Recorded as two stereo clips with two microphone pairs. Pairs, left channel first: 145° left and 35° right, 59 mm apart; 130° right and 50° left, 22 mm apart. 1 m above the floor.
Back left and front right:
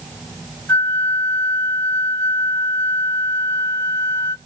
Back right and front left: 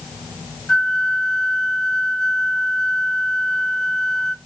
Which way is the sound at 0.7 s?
175° left.